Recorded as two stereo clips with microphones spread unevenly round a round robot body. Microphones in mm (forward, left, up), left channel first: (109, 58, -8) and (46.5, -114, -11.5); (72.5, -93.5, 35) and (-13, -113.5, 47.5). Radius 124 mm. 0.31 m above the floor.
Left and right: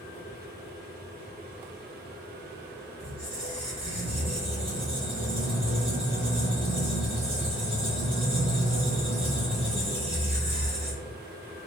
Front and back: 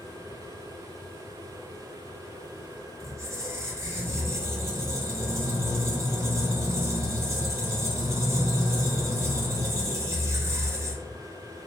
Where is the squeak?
130° right, 0.9 m.